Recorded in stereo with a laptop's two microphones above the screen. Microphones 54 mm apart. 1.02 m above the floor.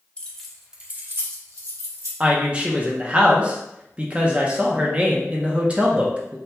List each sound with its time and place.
0.2 s keys jangling: 20° left (ahead or behind), 0.9 m; by 2.1 s 75° right (ahead or behind), 1.3 m
2.2 s a woman speaking: 20° right (ahead or behind), 0.6 m